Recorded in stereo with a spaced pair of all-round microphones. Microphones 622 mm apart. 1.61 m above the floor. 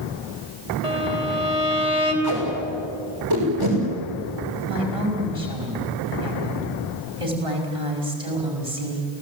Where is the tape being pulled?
35° right (ahead or behind), 6.5 m.